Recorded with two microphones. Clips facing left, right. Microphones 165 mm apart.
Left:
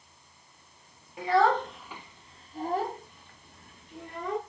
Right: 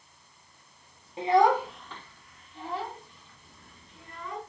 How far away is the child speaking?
About 1.0 m.